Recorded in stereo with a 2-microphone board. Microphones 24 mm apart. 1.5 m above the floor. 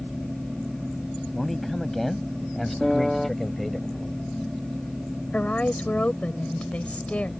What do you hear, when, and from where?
1.4 s a man speaking: 5° left (ahead or behind)
2.8 s a piano: 5° left (ahead or behind)
5.3 s a woman speaking: 65° left (ahead or behind)